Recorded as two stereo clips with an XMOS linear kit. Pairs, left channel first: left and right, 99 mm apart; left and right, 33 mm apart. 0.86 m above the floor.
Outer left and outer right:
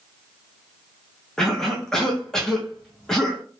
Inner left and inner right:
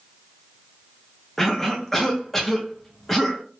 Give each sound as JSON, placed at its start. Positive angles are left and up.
{"t": 1.4, "sound": "a cough", "side_deg": 5, "distance_m": 0.6}